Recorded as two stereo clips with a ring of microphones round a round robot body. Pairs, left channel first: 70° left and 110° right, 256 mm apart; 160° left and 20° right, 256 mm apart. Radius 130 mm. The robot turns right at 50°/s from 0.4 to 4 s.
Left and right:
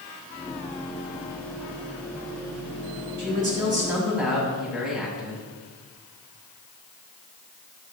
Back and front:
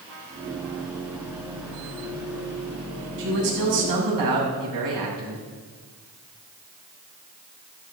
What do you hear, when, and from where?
3.2 s a man speaking: 65° right, 5.5 m; by 5.4 s 25° right, 5.5 m